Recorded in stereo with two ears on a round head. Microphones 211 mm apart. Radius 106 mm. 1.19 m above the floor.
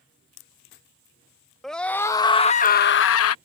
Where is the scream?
Centre (ahead or behind); by 3.4 s 70° left (ahead or behind).